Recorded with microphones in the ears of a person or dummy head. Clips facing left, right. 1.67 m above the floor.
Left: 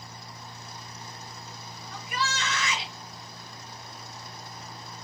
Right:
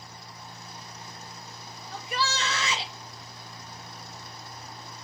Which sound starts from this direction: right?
A shout, at 1.9 s.